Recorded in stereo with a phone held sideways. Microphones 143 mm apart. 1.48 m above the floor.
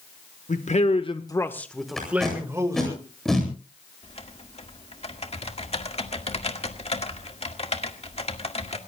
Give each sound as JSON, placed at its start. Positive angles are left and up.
{"t": 0.5, "sound": "a man speaking", "side_deg": 60, "distance_m": 1.6}
{"t": 2.0, "sound": "tape being pulled", "side_deg": 5, "distance_m": 8.5}
{"t": 4.0, "sound": "typing on a keyboard", "side_deg": 45, "distance_m": 1.9}